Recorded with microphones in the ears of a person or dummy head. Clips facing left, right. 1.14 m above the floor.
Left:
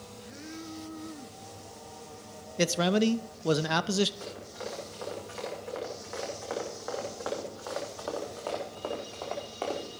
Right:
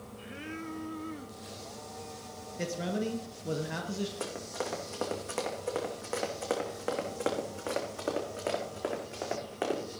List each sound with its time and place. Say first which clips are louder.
2.6 s a man speaking: left 8 dB; 80° left, 0.6 m
4.2 s running footsteps: right 3 dB; 60° right (ahead or behind), 3.5 m; by 9.8 s 5° right (ahead or behind), 3.5 m